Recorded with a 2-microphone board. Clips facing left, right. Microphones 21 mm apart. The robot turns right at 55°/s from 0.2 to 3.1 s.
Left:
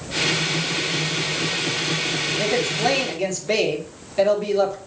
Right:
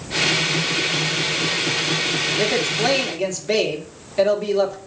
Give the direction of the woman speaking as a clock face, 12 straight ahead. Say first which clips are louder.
Even; 2 o'clock.